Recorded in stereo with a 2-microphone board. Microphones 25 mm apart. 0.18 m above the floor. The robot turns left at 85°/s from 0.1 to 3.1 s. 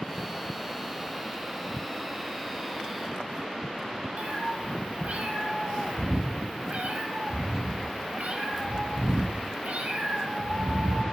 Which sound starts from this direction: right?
A cat meowing, at 4.2 s.